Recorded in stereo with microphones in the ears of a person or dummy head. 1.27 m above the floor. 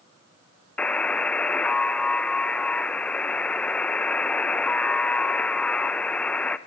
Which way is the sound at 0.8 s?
5° left (ahead or behind).